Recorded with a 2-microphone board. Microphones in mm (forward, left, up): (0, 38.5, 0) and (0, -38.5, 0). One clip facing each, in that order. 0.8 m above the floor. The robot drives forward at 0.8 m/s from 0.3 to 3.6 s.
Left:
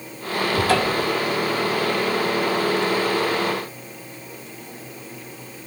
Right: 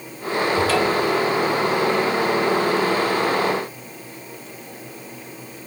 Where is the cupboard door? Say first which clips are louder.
Even; 45° left (ahead or behind), 5 m; by 1.1 s 50° left (ahead or behind), 5 m.